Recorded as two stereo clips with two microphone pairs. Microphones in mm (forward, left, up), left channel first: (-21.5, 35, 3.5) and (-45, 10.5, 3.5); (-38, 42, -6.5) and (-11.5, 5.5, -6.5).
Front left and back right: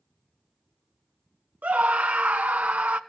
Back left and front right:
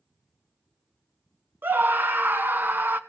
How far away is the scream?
About 1.2 m.